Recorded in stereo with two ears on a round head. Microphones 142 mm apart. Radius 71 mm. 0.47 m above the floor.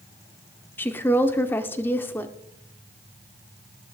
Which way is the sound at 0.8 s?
15° left (ahead or behind).